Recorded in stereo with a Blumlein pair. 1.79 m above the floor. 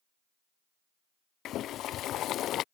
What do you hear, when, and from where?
1.4 s boiling: 35° left